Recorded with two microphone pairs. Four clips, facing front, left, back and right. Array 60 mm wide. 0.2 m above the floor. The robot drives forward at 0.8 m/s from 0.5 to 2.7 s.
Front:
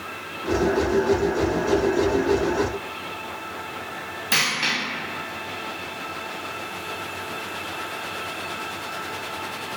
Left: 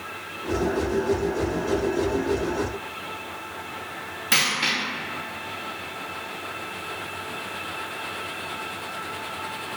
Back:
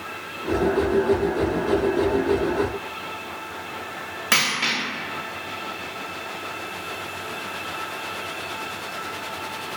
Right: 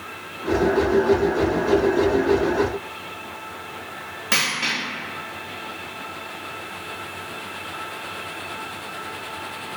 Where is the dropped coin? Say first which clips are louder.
Even, back 1 dB; 170° right, 1.7 m.